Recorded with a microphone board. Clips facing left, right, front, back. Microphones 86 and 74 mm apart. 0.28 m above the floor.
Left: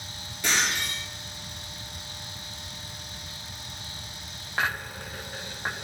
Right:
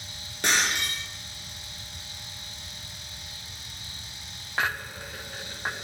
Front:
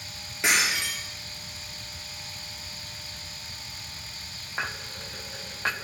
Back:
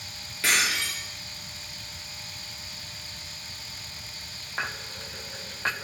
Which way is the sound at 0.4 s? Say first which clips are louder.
Right 1 dB, front 1 dB; 65° right.